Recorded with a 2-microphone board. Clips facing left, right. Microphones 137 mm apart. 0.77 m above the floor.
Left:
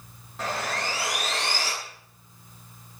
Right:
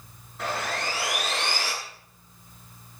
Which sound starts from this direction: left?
Sawing, at 0.4 s.